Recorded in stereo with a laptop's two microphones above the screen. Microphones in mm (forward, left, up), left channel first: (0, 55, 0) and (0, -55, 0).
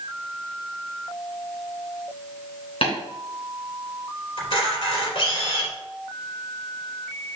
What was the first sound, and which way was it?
Tapping, 60° left (ahead or behind).